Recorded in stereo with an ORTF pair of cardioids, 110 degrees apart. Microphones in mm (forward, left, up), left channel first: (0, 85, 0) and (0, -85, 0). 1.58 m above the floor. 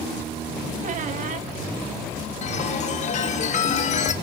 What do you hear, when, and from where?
0.8 s a squeak: 50° right, 1.9 m
2.4 s a chime: 45° left, 2 m